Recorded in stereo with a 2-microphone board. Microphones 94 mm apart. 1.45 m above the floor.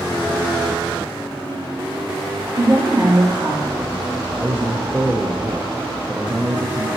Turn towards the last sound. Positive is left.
turn(degrees=-15)  # may be behind; listen again after turning